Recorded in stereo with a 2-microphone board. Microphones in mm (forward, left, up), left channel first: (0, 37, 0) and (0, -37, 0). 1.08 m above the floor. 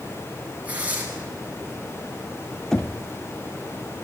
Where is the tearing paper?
20° right (ahead or behind), 7 m.